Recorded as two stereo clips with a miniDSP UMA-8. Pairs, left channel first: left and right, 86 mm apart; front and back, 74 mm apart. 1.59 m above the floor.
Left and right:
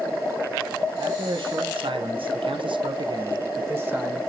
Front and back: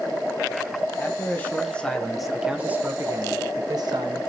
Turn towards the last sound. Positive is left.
turn(degrees=-165)